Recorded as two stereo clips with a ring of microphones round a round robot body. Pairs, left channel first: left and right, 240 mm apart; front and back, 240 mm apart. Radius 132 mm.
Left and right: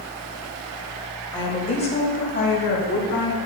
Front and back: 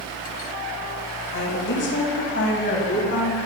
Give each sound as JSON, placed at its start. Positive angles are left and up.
{"t": 1.3, "sound": "a woman speaking", "azimuth_deg": 20, "distance_m": 1.6}